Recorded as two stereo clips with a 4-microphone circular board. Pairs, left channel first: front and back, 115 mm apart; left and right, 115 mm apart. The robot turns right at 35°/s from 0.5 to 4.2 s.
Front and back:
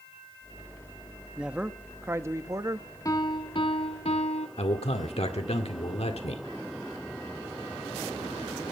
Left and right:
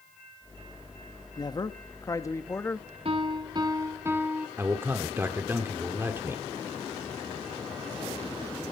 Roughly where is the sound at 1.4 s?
Left.